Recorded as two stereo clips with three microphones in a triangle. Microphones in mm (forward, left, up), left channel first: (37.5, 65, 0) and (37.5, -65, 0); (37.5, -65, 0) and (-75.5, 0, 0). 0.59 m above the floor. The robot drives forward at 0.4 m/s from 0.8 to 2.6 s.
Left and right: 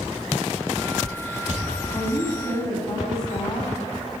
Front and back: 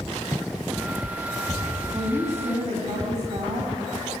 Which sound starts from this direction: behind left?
A woman speaking, at 1.9 s.